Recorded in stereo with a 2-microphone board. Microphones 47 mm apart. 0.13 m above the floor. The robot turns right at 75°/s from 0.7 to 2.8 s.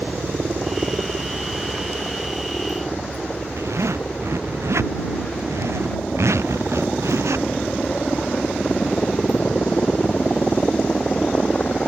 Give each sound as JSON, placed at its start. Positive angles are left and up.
{"t": 0.0, "sound": "a helicopter", "side_deg": -40}
{"t": 3.6, "sound": "a zipper", "side_deg": -80}